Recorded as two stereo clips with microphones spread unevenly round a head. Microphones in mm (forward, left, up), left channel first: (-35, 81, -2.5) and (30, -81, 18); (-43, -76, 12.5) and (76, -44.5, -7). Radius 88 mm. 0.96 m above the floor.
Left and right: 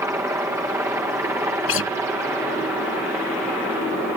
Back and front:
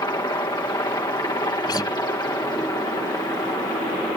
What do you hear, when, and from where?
0.0 s a helicopter: 135° right; by 4.2 s 145° right
1.7 s a guitar: 125° left